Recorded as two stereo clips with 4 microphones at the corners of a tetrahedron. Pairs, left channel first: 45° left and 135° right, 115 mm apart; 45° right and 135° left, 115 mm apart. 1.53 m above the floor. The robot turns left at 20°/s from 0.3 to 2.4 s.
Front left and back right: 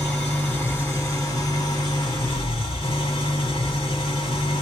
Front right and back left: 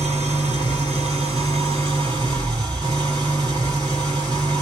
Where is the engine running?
125° left, 3.5 m; by 4.6 s 85° left, 3.5 m.